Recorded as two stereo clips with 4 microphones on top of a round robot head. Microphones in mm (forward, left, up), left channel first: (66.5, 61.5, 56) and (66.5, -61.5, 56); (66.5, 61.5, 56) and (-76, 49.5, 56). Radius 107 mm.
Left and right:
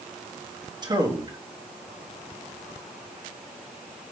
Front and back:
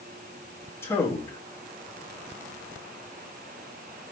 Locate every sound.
0.8 s a man speaking: 60° right, 1.4 m